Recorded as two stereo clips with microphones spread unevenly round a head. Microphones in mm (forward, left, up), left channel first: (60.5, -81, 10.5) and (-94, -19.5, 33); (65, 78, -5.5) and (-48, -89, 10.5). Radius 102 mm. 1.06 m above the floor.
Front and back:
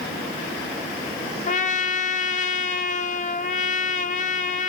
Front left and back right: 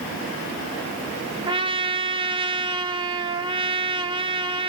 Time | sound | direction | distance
1.5 | a trumpet | 55° right | 0.8 m